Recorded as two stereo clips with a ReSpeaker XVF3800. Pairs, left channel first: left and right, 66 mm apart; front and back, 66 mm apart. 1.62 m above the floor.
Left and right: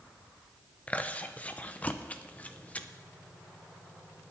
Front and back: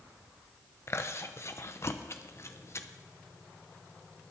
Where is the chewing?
30° left, 0.7 m.